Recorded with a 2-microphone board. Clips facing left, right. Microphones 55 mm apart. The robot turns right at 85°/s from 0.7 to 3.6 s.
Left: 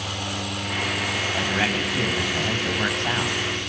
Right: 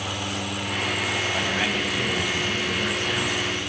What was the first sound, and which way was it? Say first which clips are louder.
A man speaking: left 1 dB; 5° right.